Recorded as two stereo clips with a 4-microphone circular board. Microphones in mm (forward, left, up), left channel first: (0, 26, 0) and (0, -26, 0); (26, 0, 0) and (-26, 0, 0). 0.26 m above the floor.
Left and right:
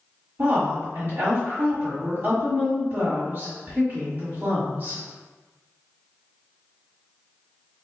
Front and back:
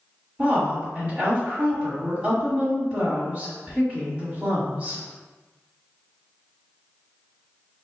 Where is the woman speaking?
120° right, 1.5 m.